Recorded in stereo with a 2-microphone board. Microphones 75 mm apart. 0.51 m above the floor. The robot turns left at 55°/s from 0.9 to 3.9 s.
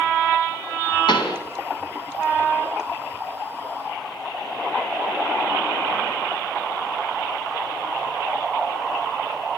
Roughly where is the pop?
Left.